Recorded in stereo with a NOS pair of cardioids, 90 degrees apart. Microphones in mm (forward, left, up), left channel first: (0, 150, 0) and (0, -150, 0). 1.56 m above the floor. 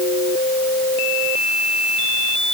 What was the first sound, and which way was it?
Only background noise.